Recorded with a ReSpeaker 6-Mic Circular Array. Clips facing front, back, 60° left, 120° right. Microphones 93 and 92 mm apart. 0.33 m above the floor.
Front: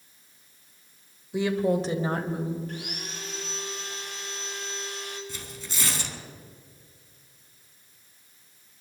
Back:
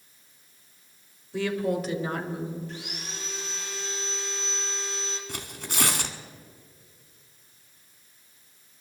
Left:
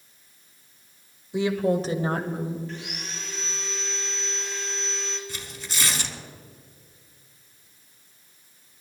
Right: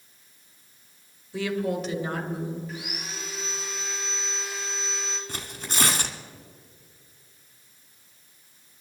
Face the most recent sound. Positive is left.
turn(degrees=-155)